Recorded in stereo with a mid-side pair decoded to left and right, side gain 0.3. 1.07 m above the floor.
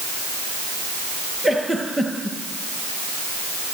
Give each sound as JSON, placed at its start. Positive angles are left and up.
{"t": 1.4, "sound": "a giggle", "azimuth_deg": -10, "distance_m": 8.5}